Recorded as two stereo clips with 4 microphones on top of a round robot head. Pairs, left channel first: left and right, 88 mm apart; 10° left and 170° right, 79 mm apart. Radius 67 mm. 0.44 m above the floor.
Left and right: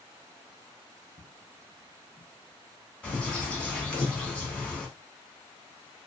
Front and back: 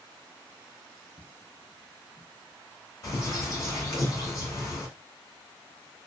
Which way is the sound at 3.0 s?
15° left.